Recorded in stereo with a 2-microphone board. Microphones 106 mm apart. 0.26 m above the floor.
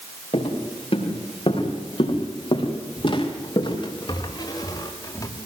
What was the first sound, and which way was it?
Footsteps, 75° left (ahead or behind).